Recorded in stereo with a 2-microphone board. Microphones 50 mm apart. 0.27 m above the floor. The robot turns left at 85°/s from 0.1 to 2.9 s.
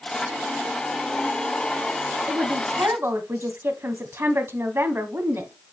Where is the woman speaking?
55° right, 1.8 m; by 5.5 s 105° right, 1.8 m.